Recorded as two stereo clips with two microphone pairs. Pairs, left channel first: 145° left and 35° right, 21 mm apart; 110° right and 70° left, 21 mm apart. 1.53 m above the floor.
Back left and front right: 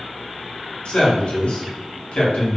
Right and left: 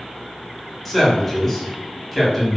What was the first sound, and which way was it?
A man speaking, 165° left.